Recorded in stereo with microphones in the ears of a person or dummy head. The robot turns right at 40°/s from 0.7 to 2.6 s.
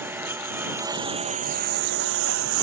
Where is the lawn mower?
170° right; by 2.6 s 95° right.